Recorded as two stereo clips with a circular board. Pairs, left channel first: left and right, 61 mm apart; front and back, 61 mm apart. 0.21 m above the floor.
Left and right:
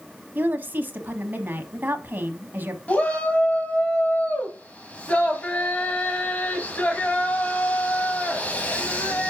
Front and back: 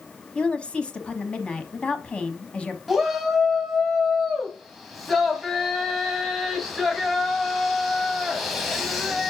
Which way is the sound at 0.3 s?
60° right.